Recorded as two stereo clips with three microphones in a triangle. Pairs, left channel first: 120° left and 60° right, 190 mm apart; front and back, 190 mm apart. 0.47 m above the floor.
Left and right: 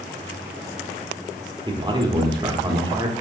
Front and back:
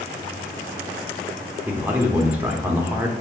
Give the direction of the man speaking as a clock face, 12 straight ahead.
4 o'clock.